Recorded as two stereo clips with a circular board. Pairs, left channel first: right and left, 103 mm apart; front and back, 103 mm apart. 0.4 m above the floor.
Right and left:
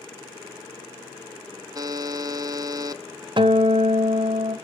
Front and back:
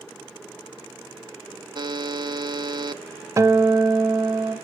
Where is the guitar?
125° left, 0.6 m.